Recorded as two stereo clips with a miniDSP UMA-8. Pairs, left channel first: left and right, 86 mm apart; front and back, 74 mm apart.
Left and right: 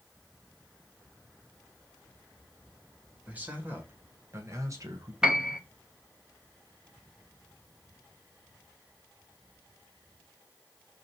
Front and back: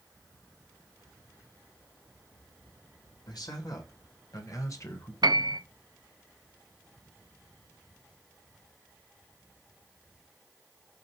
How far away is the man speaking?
About 2 m.